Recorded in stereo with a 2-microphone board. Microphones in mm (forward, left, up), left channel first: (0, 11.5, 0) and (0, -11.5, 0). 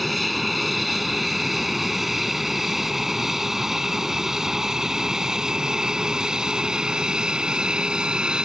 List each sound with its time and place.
0.0 s an aircraft: centre (ahead or behind); by 8.4 s 40° right (ahead or behind)